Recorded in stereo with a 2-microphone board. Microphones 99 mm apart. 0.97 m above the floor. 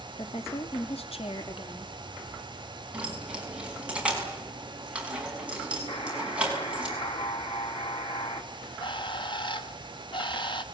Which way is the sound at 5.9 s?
75° left (ahead or behind).